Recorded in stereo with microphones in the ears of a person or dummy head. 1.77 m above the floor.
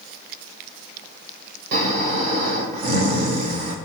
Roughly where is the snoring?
Right.